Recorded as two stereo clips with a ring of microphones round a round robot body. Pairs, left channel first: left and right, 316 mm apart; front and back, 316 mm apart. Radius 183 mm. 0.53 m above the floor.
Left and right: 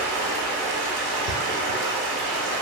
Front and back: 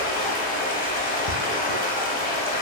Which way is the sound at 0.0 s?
65° right.